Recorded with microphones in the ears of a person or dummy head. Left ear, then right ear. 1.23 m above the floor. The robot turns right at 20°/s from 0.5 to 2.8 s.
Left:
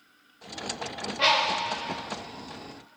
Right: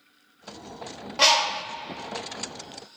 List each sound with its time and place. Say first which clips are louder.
1.2 s a bird: right 3 dB; 80° right, 0.6 m; by 1.6 s 85° right, 0.6 m